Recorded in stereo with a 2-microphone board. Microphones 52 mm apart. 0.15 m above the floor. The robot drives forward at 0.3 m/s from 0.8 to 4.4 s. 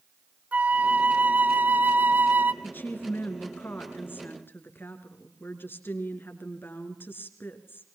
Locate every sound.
0.5 s a flute: 30° right (ahead or behind), 0.7 m; by 2.5 s 40° right (ahead or behind), 0.6 m
2.6 s a woman speaking: 40° left (ahead or behind), 3 m; by 7.8 s 45° left (ahead or behind), 2.5 m